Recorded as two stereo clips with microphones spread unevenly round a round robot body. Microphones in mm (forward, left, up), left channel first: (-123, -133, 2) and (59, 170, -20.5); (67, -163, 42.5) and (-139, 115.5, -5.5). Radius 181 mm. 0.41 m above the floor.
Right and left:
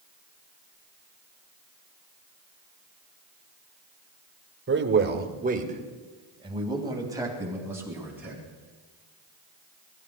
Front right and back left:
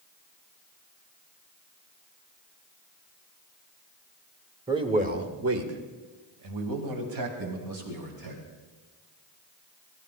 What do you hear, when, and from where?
4.7 s a man speaking: 65° left, 1.6 m; by 8.4 s 145° left, 4.5 m